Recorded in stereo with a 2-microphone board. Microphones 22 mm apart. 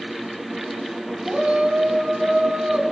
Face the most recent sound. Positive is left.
turn(degrees=-80)